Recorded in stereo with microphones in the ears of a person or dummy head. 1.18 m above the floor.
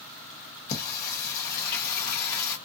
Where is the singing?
55° left (ahead or behind), 0.9 m.